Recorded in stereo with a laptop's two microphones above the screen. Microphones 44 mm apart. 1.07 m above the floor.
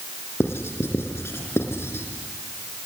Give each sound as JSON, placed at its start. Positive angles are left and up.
{"t": 0.4, "sound": "writing", "side_deg": 75, "distance_m": 3.0}